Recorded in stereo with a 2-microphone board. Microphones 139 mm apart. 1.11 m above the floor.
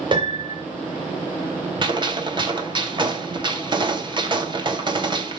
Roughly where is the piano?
Right.